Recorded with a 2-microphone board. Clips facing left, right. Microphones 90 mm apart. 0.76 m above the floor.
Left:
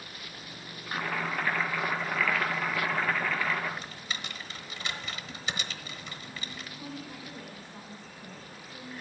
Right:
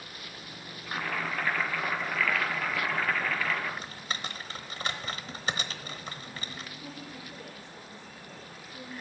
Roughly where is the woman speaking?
Left.